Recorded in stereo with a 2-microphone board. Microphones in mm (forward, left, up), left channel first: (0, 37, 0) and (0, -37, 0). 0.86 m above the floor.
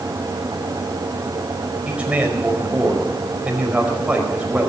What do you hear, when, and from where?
1.9 s a man speaking: 15° right (ahead or behind), 5 m